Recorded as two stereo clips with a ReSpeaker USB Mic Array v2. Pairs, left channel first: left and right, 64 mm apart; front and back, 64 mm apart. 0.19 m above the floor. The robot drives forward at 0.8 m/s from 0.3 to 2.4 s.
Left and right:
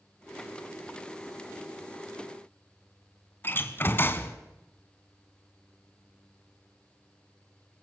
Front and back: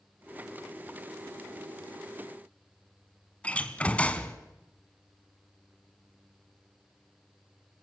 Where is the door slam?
60° left, 1.3 m.